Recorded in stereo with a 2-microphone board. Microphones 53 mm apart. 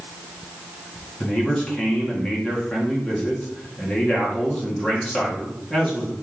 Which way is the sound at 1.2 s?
20° left (ahead or behind).